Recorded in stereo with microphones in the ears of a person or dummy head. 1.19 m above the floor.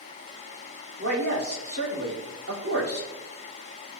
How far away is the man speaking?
About 3.5 m.